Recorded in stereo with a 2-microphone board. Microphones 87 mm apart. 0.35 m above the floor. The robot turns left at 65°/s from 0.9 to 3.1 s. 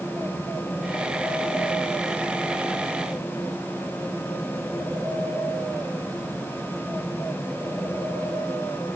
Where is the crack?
I don't hear a crack.